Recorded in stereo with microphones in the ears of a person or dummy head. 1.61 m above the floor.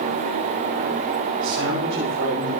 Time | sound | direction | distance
1.4 | a man speaking | 70° right (ahead or behind) | 9 m